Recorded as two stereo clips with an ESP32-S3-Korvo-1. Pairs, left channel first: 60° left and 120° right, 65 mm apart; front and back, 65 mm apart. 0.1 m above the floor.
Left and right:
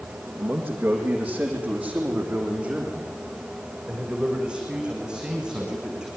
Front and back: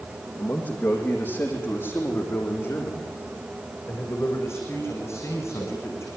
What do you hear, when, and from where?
0.4 s a man speaking: 45° right, 4.5 m; by 6.1 s 35° right, 7.5 m